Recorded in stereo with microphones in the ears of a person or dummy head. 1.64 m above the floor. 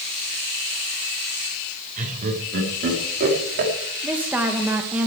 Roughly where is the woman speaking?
Centre.